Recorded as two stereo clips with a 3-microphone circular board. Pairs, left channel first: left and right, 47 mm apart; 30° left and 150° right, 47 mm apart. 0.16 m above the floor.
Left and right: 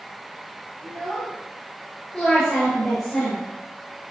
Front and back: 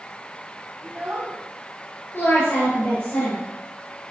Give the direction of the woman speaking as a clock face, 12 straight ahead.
11 o'clock.